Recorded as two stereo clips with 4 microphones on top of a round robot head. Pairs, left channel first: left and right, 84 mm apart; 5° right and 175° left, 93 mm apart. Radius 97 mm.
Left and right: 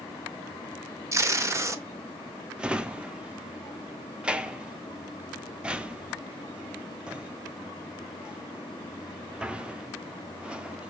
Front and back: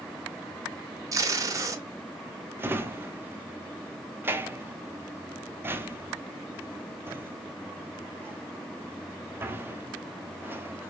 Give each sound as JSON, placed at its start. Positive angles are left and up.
{"t": 1.1, "sound": "tape being pulled", "azimuth_deg": -140, "distance_m": 0.8}
{"t": 2.6, "sound": "a drawer", "azimuth_deg": -155, "distance_m": 0.6}